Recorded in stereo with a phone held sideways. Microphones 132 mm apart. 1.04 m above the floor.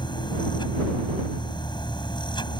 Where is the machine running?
35° left (ahead or behind).